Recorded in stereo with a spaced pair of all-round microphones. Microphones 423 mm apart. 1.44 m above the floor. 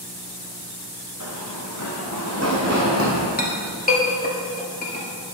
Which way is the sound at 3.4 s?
20° left (ahead or behind).